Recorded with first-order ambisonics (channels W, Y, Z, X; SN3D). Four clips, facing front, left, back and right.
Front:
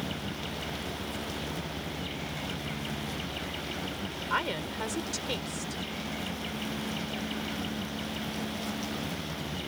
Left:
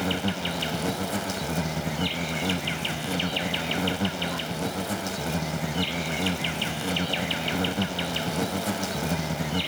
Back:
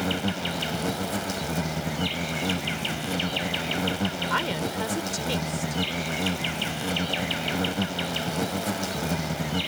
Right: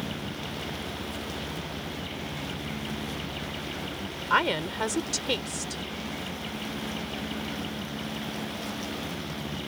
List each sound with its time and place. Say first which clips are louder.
0.0 s an insect: left 7 dB, back 8 dB; 135° left
4.3 s a woman speaking: right 5 dB, back 4 dB; 105° right